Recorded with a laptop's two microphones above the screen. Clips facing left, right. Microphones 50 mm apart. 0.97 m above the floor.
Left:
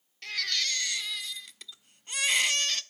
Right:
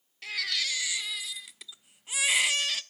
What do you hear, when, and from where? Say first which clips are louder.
0.2 s a baby crying: even; 5° right (ahead or behind), 0.7 m